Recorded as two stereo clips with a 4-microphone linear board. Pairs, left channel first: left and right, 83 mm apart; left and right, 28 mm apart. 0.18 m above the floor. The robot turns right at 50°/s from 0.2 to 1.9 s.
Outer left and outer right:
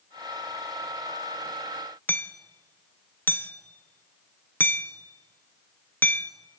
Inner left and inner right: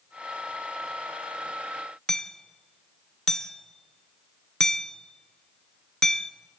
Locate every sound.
2.1 s hammering: 20° left (ahead or behind), 0.8 m